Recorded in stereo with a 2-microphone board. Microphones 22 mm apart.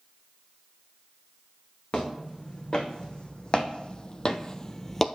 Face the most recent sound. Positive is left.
turn(degrees=5)  # may be behind; listen again after turning